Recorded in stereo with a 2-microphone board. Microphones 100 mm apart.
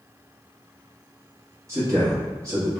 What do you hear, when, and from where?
1.7 s a man speaking: 30° right (ahead or behind), 1.3 m